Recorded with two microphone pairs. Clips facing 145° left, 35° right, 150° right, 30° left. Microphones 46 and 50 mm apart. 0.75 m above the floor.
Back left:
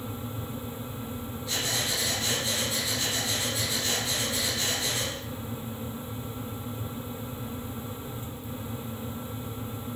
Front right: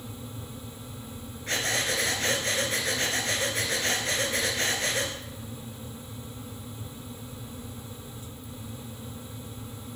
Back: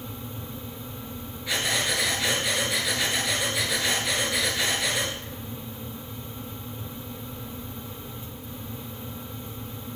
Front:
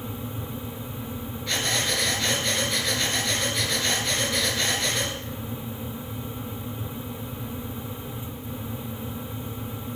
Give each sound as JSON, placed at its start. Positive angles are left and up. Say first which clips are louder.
{"t": 1.5, "sound": "breathing", "louder": "front right 3 dB, even", "azimuth_deg": -70, "distance_m": 2.0}